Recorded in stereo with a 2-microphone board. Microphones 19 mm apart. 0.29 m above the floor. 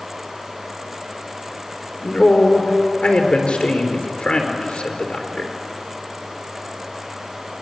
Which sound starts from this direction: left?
A man speaking, at 2.0 s.